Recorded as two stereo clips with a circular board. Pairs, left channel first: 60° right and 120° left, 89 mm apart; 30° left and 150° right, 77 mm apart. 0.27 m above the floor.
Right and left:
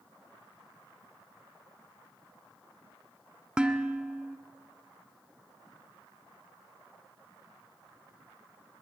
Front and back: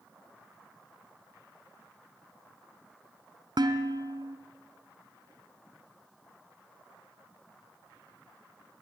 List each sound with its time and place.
3.6 s dishes clattering: 160° right, 1.7 m